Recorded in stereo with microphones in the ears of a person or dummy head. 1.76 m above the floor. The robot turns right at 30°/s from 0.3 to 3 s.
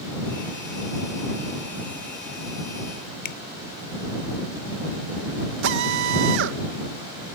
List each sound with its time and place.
3.2 s a finger snap: 60° left (ahead or behind)
5.6 s a drill: 65° right (ahead or behind)